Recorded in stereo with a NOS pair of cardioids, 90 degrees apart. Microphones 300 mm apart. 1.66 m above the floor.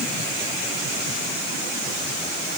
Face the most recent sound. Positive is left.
No sound to turn to.